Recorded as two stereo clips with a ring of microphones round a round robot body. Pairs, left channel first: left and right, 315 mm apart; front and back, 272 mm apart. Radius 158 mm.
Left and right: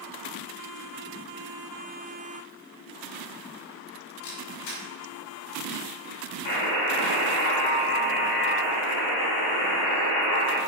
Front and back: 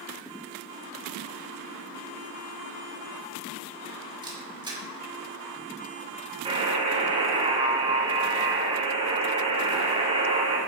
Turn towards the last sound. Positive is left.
turn(degrees=110)